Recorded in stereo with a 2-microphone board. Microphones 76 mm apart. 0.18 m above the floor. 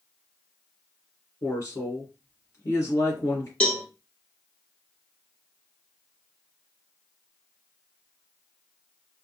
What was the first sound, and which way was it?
A woman speaking, 45° left (ahead or behind).